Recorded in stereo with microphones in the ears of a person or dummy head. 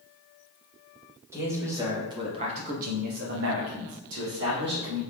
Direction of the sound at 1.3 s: 5° right (ahead or behind).